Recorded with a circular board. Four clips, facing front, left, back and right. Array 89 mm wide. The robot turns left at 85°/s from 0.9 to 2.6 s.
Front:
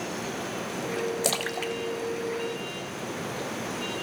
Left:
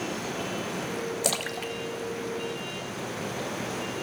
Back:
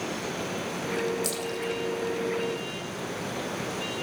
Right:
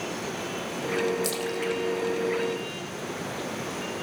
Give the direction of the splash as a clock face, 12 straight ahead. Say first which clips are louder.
Right 3 dB, front 1 dB; 11 o'clock.